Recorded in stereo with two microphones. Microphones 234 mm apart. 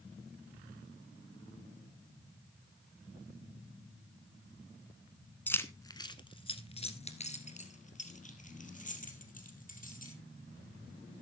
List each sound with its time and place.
5.5 s keys jangling: 5° left (ahead or behind), 1.0 m; by 10.1 s 35° left (ahead or behind), 3.5 m